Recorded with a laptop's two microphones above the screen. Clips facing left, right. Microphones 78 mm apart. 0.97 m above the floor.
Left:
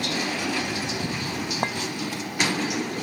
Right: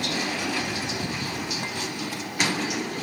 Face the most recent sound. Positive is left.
turn(degrees=50)  # may be behind; listen again after turning